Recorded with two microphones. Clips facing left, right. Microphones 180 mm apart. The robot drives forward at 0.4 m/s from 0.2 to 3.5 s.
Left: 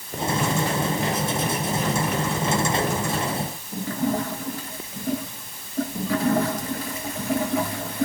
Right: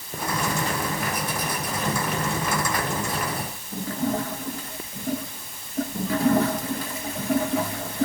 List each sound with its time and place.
Only background noise.